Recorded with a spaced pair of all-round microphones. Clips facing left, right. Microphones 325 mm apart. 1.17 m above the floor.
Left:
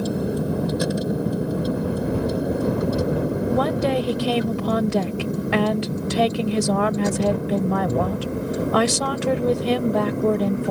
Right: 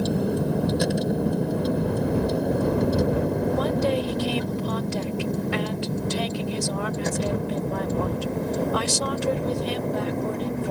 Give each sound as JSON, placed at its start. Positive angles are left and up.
{"t": 0.0, "sound": "a vehicle", "side_deg": 5}
{"t": 3.5, "sound": "a woman speaking", "side_deg": 80}